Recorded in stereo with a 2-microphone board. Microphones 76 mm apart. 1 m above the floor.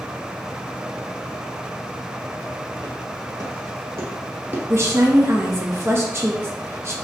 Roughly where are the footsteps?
Right.